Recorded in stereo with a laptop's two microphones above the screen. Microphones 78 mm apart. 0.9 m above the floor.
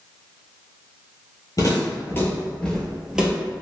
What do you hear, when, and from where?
1.6 s footsteps: 45° left (ahead or behind), 1.2 m; by 3.3 s 10° right (ahead or behind), 1.1 m